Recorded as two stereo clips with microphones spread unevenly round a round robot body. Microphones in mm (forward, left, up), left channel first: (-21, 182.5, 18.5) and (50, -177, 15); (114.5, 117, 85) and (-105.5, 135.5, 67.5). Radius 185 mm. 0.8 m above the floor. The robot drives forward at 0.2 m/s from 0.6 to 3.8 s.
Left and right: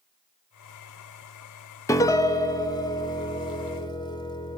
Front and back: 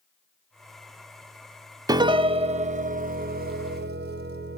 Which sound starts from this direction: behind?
A piano, at 1.9 s.